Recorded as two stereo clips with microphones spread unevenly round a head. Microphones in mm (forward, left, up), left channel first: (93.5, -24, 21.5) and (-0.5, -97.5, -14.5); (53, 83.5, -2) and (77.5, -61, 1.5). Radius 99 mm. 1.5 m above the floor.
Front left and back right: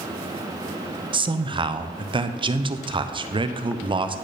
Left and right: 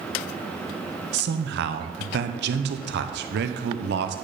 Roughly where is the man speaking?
Right.